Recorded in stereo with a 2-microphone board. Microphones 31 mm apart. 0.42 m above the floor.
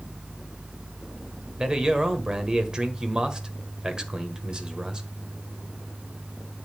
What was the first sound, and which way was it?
A man speaking, 25° right (ahead or behind).